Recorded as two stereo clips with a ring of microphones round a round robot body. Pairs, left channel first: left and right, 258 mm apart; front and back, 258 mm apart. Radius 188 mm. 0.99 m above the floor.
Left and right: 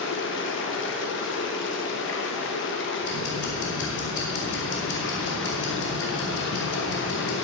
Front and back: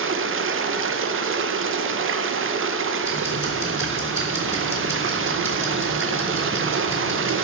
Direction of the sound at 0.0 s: 140° left.